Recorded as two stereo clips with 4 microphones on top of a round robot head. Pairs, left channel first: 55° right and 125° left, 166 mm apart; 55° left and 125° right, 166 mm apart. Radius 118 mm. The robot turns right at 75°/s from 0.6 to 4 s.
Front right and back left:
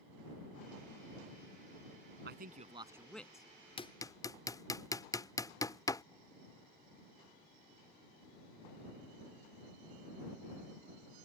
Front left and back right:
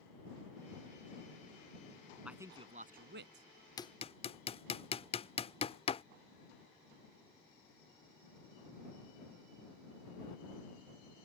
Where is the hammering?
5° right; by 6.0 s 10° left.